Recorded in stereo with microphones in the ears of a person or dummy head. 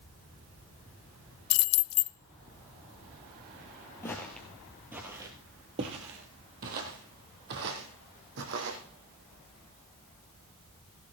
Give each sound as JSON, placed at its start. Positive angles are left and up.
{"t": 1.5, "sound": "keys jangling", "side_deg": 80, "distance_m": 0.5}
{"t": 4.0, "sound": "footsteps", "side_deg": 10, "distance_m": 1.4}